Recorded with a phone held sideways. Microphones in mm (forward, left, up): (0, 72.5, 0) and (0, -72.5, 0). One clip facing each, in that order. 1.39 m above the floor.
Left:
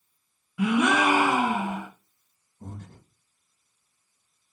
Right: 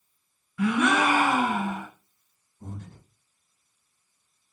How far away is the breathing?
About 1.1 m.